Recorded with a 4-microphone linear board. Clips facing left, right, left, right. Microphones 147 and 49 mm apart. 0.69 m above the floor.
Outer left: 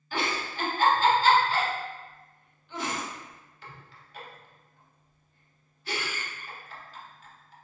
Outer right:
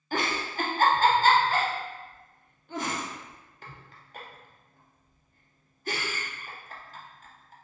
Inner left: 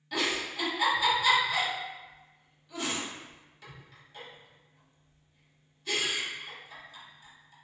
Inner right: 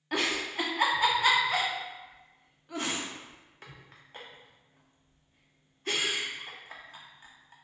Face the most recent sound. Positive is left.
turn(degrees=-45)  # may be behind; listen again after turning